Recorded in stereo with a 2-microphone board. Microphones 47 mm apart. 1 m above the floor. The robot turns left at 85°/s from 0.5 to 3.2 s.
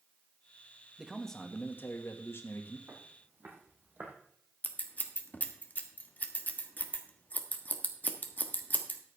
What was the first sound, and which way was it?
A man speaking, 165° right.